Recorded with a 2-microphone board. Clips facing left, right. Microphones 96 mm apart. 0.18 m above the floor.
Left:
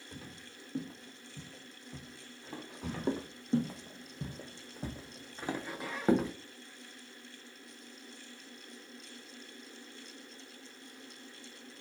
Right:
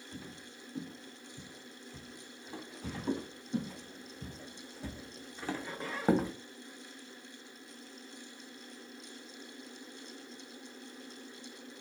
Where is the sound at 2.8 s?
85° left, 1.5 m; by 6.3 s 15° right (ahead or behind), 0.8 m.